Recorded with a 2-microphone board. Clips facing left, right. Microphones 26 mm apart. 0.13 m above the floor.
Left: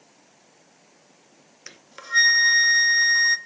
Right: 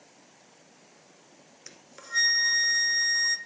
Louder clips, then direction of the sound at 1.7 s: Left 8 dB; 35° left (ahead or behind).